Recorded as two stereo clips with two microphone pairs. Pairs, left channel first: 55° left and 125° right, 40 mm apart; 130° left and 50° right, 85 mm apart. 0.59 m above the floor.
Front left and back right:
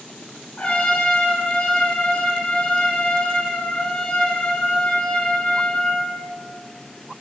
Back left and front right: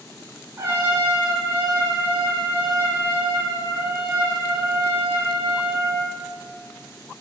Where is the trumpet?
Straight ahead, 2 m.